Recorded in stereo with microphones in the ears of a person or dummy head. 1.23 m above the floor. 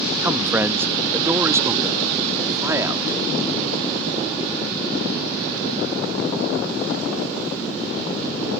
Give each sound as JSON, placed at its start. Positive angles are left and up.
{"t": 0.2, "sound": "a man speaking", "side_deg": -10}